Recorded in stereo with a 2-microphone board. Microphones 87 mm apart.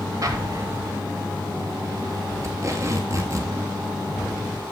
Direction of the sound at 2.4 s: 40° right (ahead or behind).